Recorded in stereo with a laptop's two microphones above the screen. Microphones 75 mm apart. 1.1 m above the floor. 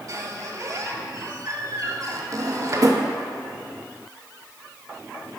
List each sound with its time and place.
0.1 s a squeak: 50° right (ahead or behind), 1.4 m
2.3 s a drawer: 50° right (ahead or behind), 0.8 m